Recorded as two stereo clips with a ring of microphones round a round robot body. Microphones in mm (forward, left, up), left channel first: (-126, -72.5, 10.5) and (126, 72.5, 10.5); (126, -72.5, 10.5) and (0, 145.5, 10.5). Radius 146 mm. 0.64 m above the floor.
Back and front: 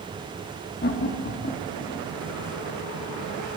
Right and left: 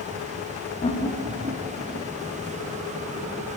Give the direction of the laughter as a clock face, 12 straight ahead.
4 o'clock.